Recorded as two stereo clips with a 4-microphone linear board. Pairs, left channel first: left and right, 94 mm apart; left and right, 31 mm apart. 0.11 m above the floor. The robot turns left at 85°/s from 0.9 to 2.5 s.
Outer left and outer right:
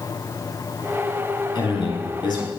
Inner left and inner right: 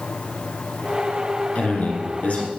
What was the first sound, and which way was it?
A man speaking, 115° left.